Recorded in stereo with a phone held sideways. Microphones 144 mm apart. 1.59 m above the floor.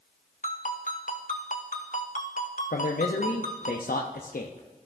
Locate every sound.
0.4 s a ringtone: 65° left (ahead or behind), 1.1 m
2.7 s a man speaking: 85° left, 0.6 m